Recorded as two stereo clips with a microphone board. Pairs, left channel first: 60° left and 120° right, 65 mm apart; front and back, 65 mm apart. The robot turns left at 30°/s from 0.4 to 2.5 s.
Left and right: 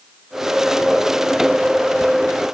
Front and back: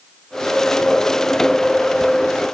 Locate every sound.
Only background noise.